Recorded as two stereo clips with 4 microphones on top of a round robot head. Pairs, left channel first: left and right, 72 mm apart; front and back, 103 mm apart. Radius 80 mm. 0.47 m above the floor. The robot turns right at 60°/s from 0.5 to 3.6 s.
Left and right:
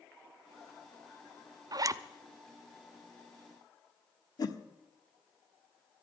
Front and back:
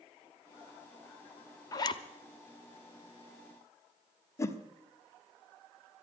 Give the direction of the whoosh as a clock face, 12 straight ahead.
10 o'clock.